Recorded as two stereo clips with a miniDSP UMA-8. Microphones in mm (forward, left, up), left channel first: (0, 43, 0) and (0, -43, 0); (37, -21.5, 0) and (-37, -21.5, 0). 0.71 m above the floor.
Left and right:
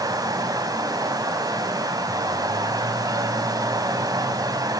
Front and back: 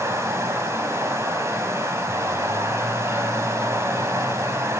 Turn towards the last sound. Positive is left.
turn(degrees=-130)